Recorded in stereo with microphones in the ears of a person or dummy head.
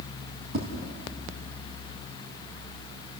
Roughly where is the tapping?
Right.